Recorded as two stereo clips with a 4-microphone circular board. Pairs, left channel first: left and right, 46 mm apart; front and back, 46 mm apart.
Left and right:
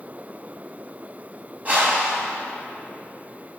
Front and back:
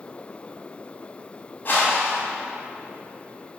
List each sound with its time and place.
1.6 s a whoosh: 40° right, 2.5 m